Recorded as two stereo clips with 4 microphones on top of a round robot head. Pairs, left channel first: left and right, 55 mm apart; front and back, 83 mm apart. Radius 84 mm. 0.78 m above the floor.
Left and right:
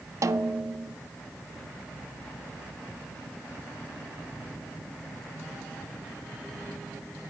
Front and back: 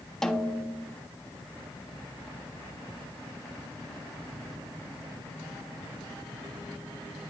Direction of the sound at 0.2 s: 80° right.